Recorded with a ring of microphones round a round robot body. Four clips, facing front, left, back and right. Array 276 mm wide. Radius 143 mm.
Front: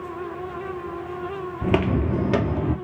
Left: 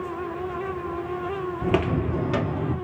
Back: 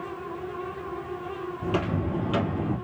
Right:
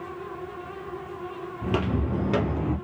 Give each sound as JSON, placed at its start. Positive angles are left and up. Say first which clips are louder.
{"t": 1.6, "sound": "footsteps", "louder": "left 3 dB, front 6 dB", "azimuth_deg": 25, "distance_m": 1.2}